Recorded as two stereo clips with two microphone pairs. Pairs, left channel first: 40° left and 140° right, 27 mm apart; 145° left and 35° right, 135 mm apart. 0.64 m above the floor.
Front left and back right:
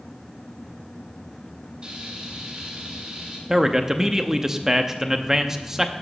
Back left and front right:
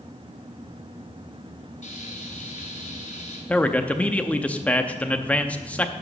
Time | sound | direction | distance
1.8 | frying | 170° left | 3 m
3.5 | a man speaking | 160° right | 0.6 m